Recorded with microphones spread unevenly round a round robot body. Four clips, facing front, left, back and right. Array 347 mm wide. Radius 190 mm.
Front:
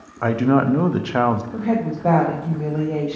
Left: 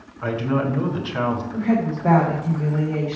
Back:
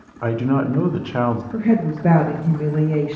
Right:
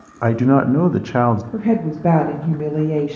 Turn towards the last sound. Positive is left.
turn(degrees=-120)